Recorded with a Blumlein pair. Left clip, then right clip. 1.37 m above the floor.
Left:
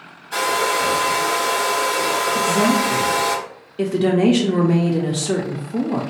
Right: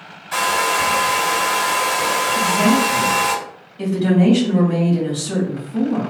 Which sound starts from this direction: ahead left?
A woman speaking, at 2.4 s.